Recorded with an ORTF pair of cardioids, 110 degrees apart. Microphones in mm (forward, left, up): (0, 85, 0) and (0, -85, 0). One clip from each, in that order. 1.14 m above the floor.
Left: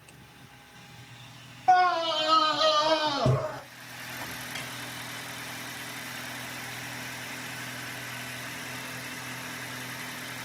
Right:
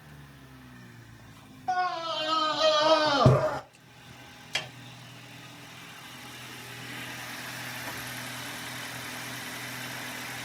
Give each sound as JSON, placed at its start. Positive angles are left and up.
{"t": 1.7, "sound": "a scream", "azimuth_deg": 45, "distance_m": 1.1}
{"t": 4.5, "sound": "a snare drum", "azimuth_deg": -70, "distance_m": 4.0}